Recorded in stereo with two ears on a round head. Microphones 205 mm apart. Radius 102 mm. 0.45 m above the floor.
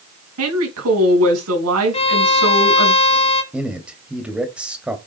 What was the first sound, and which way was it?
A woman speaking, 70° right (ahead or behind).